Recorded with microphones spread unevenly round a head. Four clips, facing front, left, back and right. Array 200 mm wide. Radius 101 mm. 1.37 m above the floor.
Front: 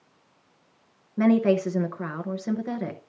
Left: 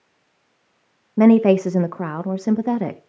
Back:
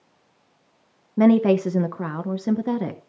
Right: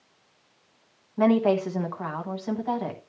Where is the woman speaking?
120° left, 0.9 m.